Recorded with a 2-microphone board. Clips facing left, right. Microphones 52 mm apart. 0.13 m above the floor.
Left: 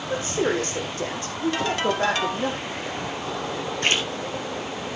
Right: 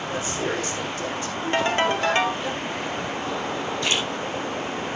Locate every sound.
0.1 s a woman speaking: 40° left (ahead or behind), 5.5 m
1.5 s a ringtone: 30° right (ahead or behind), 1.6 m
3.8 s a splash: 45° left (ahead or behind), 3 m